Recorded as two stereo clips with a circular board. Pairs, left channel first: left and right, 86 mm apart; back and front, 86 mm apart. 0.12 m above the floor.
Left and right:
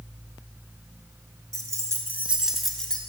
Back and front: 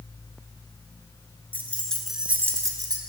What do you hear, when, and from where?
1.5 s keys jangling: 125° right, 1.2 m; by 3.0 s 15° left, 1.2 m